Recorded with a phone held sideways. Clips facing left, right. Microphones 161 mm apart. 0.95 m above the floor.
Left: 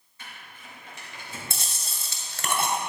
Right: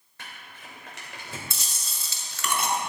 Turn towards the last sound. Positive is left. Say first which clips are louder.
# left 3 dB
turn(degrees=50)  # may be behind; listen again after turning